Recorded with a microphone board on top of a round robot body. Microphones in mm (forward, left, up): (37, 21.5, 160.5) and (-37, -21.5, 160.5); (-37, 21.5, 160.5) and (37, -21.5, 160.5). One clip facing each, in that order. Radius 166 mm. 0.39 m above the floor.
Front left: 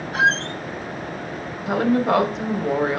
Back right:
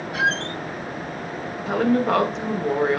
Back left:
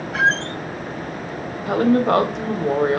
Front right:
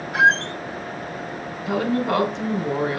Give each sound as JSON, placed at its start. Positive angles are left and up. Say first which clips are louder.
{"t": 0.1, "sound": "a squeak", "louder": "front left 4 dB, front right 2 dB", "azimuth_deg": 50, "distance_m": 0.9}
{"t": 1.7, "sound": "a woman speaking", "louder": "front left 1 dB, back left 5 dB", "azimuth_deg": 115, "distance_m": 1.6}